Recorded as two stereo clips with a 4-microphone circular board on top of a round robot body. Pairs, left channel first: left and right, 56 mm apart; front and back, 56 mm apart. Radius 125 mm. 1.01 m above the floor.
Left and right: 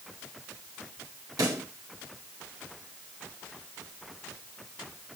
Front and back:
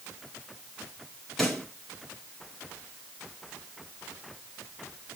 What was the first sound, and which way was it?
A pop, 85° right.